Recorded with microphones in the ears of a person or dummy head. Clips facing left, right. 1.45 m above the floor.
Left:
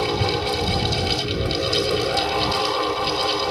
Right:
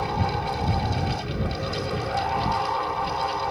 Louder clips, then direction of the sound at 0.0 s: Left 5 dB; 60° left (ahead or behind).